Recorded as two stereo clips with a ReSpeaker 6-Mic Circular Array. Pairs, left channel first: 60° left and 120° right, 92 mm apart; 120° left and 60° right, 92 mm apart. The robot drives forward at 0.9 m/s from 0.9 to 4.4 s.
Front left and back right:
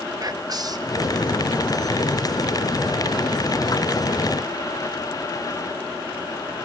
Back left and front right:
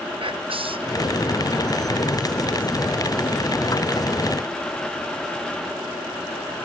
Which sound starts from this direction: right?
Whispering, at 0.2 s.